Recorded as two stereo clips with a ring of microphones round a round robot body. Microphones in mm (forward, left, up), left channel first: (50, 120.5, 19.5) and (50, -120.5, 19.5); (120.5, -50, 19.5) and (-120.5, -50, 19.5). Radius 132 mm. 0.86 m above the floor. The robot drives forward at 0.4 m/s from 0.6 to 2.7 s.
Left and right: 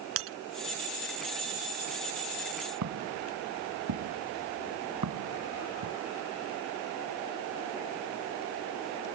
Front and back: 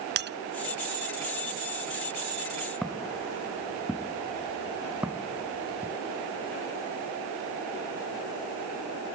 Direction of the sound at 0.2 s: 135° right.